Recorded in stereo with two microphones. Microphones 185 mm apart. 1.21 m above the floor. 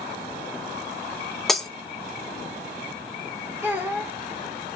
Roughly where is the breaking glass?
Centre.